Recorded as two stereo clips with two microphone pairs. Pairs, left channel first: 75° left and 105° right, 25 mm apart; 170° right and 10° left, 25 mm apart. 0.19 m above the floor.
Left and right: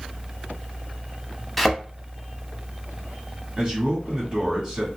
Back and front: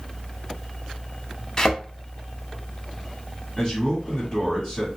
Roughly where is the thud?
Behind.